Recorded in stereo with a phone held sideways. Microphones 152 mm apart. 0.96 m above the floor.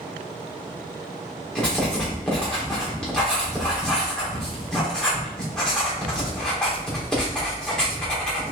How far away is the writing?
About 3.5 m.